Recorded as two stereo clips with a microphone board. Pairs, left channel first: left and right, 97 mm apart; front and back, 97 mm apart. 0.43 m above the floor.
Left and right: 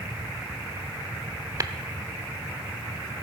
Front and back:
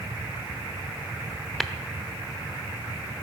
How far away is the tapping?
About 0.8 m.